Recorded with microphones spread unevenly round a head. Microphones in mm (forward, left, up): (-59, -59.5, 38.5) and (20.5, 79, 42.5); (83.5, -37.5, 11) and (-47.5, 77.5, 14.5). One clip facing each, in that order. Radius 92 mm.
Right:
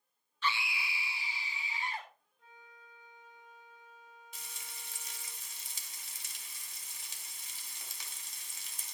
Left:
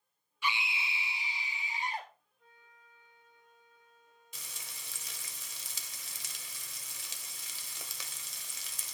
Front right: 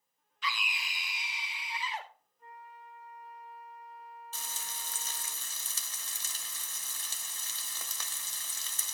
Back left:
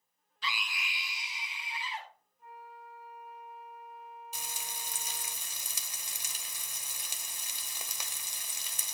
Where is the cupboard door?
I don't hear a cupboard door.